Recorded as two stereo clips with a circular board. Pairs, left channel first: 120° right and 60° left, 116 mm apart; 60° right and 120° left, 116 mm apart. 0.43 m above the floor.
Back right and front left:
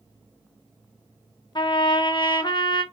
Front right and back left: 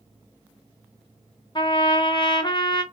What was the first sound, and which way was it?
A trumpet, 90° right.